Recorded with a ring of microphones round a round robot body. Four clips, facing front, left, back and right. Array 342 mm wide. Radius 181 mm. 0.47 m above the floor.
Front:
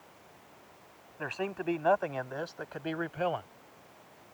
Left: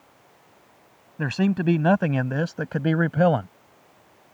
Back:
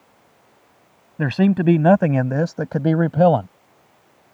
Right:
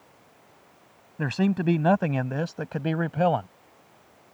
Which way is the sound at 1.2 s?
175° left.